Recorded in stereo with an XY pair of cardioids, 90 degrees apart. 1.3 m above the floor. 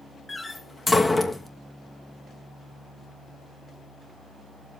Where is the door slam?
25° left, 1.1 m.